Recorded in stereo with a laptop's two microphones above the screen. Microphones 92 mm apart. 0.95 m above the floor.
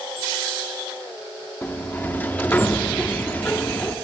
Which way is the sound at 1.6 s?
20° left (ahead or behind).